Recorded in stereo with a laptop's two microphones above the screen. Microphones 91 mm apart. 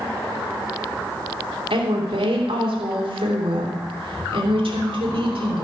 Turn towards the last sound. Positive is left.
turn(degrees=-80)